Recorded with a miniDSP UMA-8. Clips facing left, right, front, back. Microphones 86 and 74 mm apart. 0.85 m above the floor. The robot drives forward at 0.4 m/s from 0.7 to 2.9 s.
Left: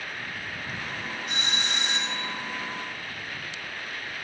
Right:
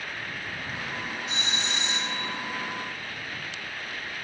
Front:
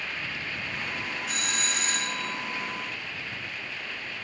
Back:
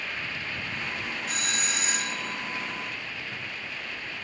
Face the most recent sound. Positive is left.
turn(degrees=110)